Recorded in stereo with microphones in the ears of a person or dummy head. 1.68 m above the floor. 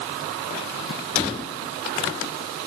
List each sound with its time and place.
Only background noise.